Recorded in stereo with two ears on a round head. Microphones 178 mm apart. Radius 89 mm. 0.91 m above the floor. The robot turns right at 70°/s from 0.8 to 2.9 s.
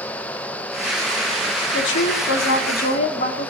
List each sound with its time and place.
1.7 s a woman speaking: 55° left, 1.9 m; by 3.5 s 135° left, 1.9 m